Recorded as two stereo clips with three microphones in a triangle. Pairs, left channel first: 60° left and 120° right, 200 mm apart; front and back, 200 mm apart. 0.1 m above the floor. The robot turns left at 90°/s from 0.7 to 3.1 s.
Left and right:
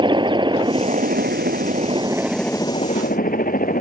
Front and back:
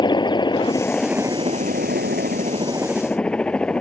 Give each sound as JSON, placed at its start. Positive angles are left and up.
{"t": 0.0, "sound": "a helicopter", "azimuth_deg": -60}